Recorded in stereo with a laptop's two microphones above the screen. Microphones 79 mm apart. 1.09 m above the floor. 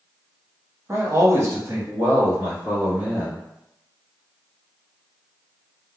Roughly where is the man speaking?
Right.